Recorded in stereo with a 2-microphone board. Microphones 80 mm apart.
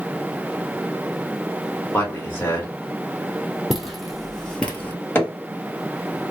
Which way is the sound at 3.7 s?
5° right (ahead or behind).